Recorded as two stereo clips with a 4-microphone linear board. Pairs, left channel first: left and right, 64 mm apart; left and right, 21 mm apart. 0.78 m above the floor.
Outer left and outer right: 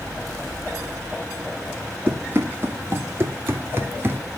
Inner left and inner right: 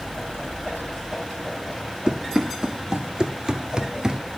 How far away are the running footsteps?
About 2.0 m.